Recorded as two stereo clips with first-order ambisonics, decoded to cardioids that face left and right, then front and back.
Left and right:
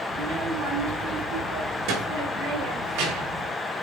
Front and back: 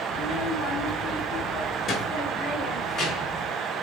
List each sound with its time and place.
0.1 s a child speaking: 45° right, 3.5 m; by 3.5 s 65° right, 5 m